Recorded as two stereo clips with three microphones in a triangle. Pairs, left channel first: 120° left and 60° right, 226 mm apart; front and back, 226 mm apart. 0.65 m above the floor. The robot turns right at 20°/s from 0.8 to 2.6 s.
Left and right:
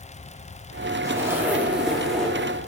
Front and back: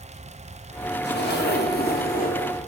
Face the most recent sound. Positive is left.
turn(degrees=40)